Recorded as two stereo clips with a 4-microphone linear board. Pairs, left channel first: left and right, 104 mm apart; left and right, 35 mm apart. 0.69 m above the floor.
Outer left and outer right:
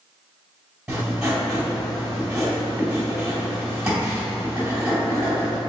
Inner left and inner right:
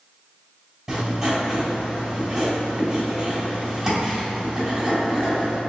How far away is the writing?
About 1.9 m.